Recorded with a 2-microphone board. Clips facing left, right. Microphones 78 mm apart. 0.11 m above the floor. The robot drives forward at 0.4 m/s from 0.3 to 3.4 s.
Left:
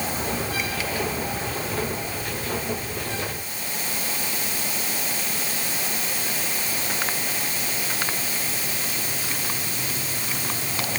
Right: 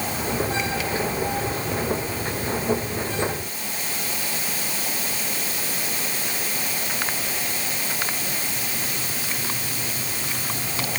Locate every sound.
Only background noise.